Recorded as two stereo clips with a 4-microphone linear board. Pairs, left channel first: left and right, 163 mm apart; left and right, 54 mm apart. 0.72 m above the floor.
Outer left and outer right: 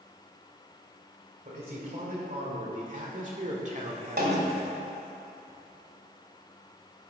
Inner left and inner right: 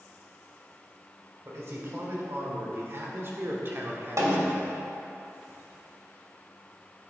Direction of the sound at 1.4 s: 55° right (ahead or behind).